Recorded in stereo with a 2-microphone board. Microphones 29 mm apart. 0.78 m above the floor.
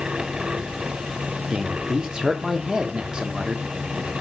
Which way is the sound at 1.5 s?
30° right (ahead or behind).